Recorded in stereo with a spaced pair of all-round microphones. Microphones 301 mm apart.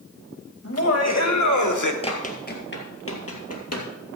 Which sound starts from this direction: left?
Laughter, at 0.6 s.